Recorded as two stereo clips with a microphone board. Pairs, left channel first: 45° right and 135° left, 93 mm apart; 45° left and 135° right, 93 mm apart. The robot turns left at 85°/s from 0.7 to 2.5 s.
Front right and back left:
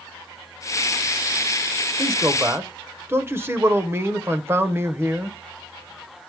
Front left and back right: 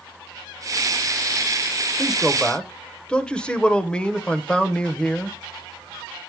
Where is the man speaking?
155° left, 0.9 m; by 5.4 s 115° left, 0.9 m.